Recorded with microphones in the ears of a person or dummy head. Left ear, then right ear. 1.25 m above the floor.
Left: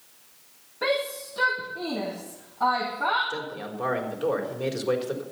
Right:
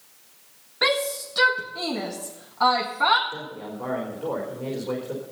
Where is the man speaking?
85° left, 4 m.